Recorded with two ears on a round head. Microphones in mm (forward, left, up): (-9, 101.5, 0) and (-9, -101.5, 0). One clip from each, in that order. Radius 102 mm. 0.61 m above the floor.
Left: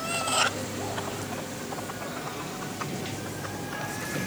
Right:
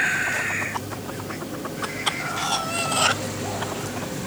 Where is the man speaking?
I don't hear a man speaking.